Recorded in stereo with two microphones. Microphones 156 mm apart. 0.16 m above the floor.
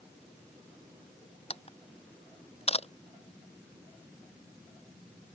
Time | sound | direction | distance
1.5 | a camera shutter | 40° left (ahead or behind) | ?